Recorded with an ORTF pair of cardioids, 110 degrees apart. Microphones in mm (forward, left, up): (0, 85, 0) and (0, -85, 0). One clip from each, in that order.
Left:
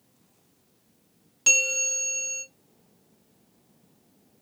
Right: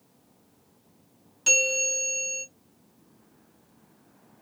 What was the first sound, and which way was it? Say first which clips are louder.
A bell: even; 30° left.